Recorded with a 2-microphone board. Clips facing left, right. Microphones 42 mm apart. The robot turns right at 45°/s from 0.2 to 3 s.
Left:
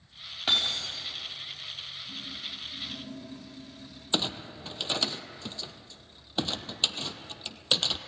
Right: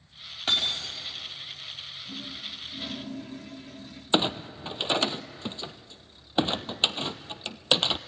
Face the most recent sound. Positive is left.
turn(degrees=-30)  # may be behind; listen again after turning